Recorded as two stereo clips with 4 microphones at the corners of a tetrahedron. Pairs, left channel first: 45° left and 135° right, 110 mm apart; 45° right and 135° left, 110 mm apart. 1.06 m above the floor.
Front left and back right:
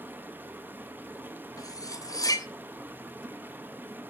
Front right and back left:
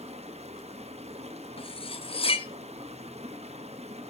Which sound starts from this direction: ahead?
Cutlery clinking, at 1.6 s.